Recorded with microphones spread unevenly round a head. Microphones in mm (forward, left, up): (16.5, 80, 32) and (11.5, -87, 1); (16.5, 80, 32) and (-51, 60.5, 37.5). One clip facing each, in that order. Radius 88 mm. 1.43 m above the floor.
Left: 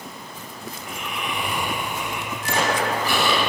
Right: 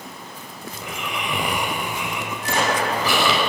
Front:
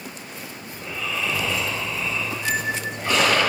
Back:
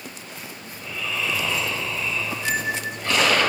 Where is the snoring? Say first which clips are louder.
Right 4 dB, front 1 dB; 65° right, 5.5 m.